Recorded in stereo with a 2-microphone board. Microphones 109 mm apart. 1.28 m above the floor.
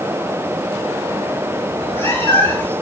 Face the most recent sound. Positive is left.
turn(degrees=15)  # may be behind; listen again after turning